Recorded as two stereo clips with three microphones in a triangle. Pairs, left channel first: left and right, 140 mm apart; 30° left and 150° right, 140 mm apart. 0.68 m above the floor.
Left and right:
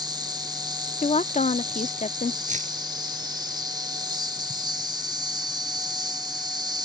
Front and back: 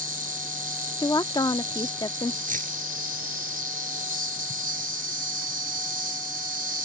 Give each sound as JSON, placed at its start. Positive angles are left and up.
{"t": 0.0, "sound": "an insect", "azimuth_deg": -150}
{"t": 1.0, "sound": "a woman speaking", "azimuth_deg": 85}
{"t": 2.5, "sound": "keys jangling", "azimuth_deg": -125}